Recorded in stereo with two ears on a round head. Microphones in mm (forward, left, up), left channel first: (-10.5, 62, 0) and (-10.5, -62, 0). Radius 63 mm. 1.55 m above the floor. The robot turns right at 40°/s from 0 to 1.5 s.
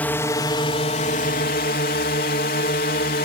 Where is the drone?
10° left; by 3.3 s 70° left.